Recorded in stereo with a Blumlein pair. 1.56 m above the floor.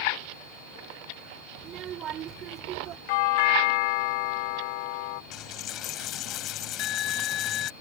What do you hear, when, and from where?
1.6 s a child speaking: 30° right; by 3.0 s 35° right
3.1 s a doorbell: 50° left
5.3 s a dropped coin: 35° left